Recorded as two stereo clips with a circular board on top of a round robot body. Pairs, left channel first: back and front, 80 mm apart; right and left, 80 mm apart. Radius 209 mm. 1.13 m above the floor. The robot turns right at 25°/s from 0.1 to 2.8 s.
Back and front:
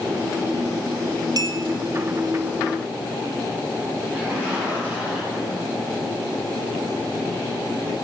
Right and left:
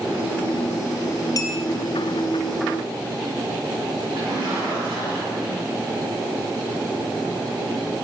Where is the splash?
70° left, 5 m.